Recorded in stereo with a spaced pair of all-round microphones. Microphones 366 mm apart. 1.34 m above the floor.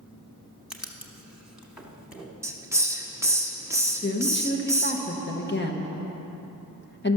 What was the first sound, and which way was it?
Writing, 5° right (ahead or behind).